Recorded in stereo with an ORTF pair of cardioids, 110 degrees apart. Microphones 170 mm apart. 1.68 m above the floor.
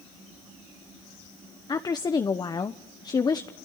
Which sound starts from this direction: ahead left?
A woman speaking, at 1.7 s.